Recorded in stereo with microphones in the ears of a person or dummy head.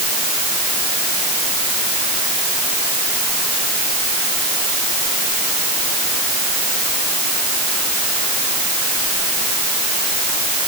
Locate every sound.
Only background noise.